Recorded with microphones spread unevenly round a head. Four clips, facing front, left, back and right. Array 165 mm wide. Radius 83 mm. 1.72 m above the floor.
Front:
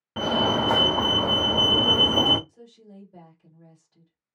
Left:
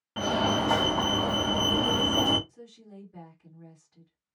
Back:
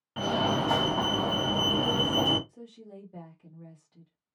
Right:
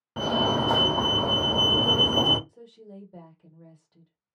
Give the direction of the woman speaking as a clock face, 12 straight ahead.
4 o'clock.